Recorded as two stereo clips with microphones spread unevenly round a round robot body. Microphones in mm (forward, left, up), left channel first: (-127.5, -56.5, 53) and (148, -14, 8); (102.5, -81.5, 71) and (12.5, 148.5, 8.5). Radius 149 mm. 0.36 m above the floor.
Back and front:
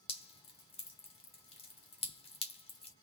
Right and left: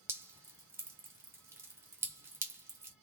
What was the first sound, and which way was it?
Dripping, 125° left.